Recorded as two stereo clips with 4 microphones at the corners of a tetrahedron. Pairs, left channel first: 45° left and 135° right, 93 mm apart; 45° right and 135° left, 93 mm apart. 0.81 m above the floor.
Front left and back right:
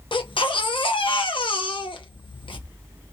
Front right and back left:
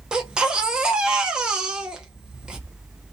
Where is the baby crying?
55° left, 0.7 m.